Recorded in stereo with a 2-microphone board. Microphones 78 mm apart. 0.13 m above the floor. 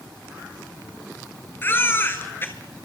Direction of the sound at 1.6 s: 30° left (ahead or behind).